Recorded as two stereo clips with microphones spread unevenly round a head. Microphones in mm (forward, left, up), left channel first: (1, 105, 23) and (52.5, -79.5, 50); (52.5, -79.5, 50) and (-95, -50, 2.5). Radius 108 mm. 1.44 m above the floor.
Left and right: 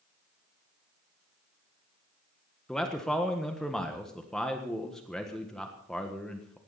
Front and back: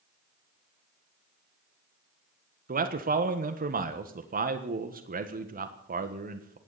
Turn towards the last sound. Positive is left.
turn(degrees=-170)